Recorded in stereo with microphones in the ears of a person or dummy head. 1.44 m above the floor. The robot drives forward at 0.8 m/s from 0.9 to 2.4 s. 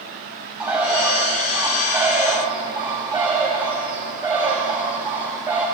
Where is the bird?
5° right (ahead or behind), 2.5 m; by 5.7 s 10° right (ahead or behind), 1.4 m.